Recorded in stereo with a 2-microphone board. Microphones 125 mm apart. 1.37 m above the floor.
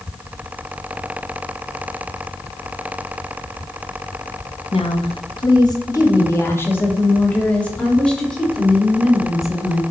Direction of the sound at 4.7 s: 50° left (ahead or behind).